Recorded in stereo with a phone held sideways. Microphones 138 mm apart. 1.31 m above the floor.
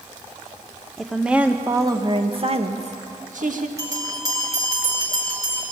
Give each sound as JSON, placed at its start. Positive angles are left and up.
{"t": 1.0, "sound": "a woman speaking", "side_deg": 0, "distance_m": 1.5}
{"t": 3.8, "sound": "a bell", "side_deg": -25, "distance_m": 3.0}